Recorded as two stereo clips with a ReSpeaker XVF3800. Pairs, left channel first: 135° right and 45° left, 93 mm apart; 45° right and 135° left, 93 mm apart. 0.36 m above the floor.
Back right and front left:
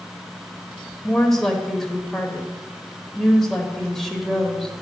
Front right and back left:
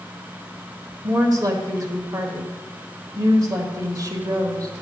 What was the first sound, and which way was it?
A woman speaking, 140° left.